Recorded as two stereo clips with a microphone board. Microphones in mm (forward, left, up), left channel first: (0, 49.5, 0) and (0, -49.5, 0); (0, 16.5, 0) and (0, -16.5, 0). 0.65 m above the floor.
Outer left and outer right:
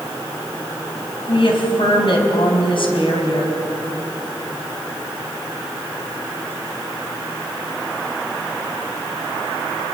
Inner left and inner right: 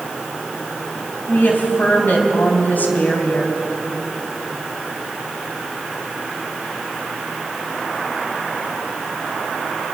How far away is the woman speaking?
About 4 m.